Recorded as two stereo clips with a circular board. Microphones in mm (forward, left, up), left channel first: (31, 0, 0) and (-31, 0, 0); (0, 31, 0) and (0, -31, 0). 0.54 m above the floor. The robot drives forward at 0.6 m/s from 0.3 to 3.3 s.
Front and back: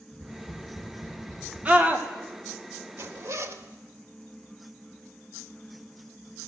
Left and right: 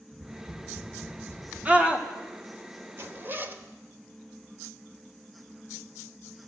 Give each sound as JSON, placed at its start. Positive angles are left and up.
{"t": 0.1, "sound": "tapping", "azimuth_deg": -125, "distance_m": 3.0}
{"t": 1.6, "sound": "a scream", "azimuth_deg": -135, "distance_m": 1.5}
{"t": 3.0, "sound": "a zipper", "azimuth_deg": -135, "distance_m": 0.8}